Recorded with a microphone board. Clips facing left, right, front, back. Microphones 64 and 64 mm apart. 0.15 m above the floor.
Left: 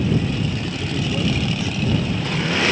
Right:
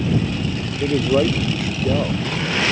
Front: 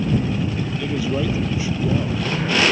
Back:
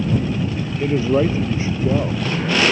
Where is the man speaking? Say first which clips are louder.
Right 8 dB, back 7 dB; 125° right.